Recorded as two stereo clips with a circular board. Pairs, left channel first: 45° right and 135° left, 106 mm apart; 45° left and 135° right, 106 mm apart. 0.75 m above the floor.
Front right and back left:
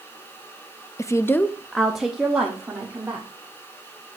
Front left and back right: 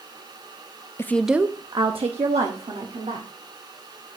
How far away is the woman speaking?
About 0.5 m.